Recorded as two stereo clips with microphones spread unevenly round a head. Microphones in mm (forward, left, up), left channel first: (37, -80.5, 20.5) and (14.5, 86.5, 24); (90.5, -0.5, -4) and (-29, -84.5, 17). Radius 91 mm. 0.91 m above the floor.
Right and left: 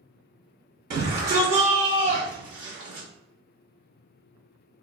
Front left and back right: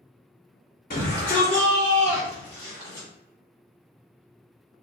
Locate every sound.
0.9 s a shout: 70° left, 1.7 m; by 3.1 s 120° left, 2.5 m